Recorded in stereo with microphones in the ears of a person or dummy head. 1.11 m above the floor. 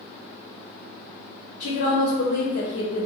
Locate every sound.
1.6 s a woman speaking: 75° left (ahead or behind), 1.0 m